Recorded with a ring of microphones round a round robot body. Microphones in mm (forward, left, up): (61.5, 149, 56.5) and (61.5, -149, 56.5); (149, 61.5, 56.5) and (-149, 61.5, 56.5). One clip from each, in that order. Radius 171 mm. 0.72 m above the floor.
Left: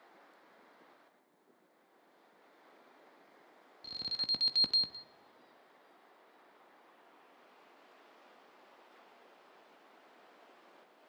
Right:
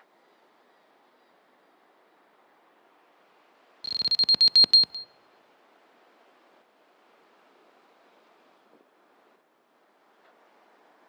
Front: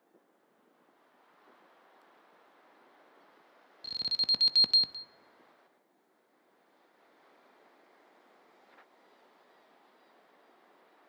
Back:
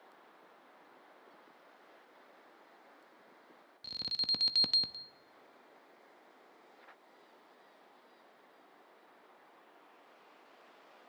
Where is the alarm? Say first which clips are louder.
Right 12 dB, front 5 dB; 80° right, 0.6 m.